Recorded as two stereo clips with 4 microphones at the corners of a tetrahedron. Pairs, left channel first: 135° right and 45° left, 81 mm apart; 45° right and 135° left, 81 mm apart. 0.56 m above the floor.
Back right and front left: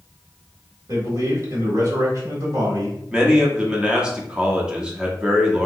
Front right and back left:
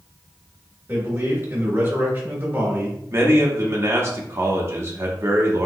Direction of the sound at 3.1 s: 115° left.